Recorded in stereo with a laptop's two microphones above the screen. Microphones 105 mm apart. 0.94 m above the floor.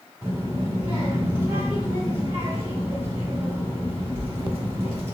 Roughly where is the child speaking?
Right.